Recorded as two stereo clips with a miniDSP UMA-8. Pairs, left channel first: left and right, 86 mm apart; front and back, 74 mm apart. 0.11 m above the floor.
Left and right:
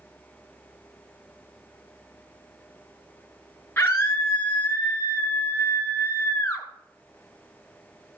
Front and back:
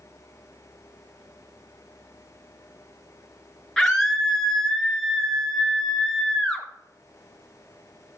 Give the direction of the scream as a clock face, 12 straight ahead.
9 o'clock.